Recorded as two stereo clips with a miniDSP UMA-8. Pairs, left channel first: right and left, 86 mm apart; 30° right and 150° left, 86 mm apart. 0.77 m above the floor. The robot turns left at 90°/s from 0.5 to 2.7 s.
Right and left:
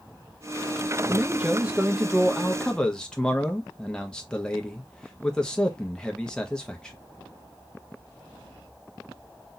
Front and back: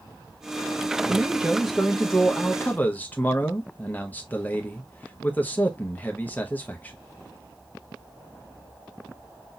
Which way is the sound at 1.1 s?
120° left.